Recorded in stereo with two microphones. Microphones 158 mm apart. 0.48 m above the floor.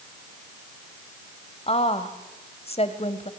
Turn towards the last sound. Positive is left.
turn(degrees=40)  # may be behind; listen again after turning